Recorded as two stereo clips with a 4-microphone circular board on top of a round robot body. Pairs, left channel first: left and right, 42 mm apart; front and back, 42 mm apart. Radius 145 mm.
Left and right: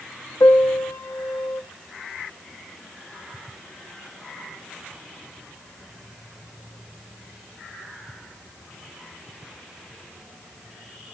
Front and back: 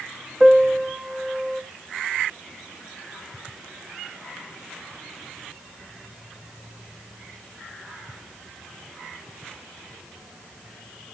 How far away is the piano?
About 0.9 m.